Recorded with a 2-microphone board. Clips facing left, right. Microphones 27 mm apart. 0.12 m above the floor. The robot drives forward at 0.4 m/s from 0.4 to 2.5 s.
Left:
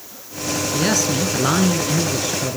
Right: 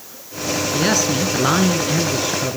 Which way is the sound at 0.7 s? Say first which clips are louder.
Right 1 dB; 10° right (ahead or behind).